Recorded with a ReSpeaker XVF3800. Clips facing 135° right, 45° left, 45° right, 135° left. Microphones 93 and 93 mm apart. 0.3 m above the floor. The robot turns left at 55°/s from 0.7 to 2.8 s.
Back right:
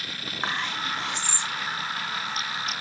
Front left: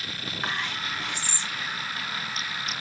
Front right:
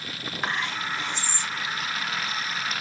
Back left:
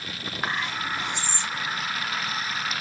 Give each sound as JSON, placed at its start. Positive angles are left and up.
{"t": 0.4, "sound": "whispering", "azimuth_deg": -150, "distance_m": 0.9}